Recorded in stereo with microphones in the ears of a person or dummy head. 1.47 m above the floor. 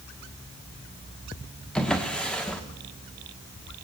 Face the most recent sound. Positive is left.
turn(degrees=5)  # may be behind; listen again after turning